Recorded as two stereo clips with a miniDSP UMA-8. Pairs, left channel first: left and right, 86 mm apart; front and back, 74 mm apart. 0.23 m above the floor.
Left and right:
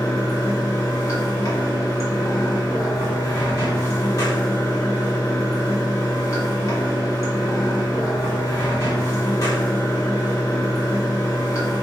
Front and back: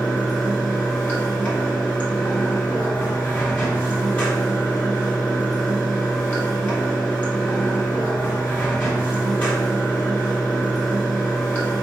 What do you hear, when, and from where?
0.0 s running water: 65° left, 1.7 m